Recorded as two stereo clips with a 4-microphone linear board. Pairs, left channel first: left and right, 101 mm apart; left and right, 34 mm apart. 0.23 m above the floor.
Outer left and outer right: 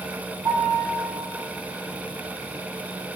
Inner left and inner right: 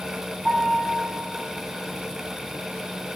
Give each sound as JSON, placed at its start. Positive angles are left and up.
{"t": 0.5, "sound": "a piano", "side_deg": -45, "distance_m": 5.0}